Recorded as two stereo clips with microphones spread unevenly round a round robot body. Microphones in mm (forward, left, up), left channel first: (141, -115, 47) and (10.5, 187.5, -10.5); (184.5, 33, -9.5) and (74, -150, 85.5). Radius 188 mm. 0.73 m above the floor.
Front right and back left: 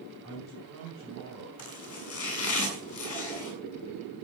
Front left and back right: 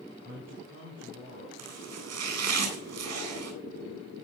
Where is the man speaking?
170° left, 3.5 m.